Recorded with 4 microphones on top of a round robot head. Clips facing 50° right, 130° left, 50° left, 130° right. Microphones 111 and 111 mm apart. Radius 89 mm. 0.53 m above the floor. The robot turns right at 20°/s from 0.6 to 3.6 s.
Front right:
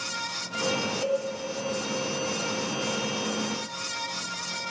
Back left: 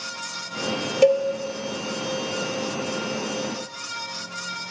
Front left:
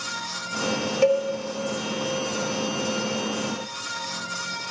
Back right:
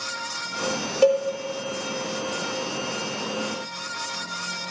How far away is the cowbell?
About 0.5 m.